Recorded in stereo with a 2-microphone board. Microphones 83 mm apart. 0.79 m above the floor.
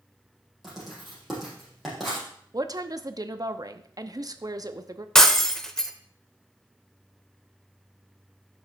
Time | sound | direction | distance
0.6 | writing | centre (ahead or behind) | 5 m
2.5 | a woman speaking | 45° right (ahead or behind) | 0.8 m
5.2 | breaking glass | 5° left (ahead or behind) | 0.9 m